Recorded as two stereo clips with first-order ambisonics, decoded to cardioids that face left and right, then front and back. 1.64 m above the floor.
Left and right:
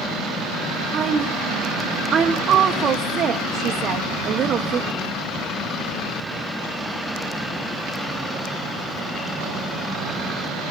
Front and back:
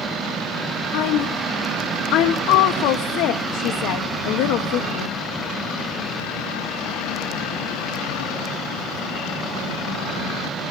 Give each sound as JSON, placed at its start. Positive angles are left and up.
{"t": 0.9, "sound": "a woman speaking", "azimuth_deg": -30, "distance_m": 1.2}